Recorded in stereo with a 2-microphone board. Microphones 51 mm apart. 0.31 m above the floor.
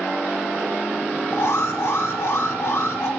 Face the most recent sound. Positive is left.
turn(degrees=60)  # may be behind; listen again after turning